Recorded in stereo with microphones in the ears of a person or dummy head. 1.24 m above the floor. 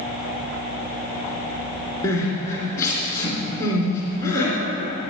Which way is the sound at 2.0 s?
20° left (ahead or behind).